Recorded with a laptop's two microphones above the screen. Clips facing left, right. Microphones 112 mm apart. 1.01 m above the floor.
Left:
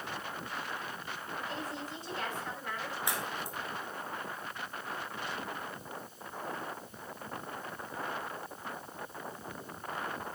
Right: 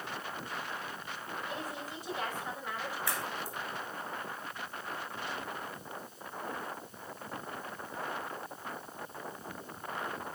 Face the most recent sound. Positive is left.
turn(degrees=20)  # may be behind; listen again after turning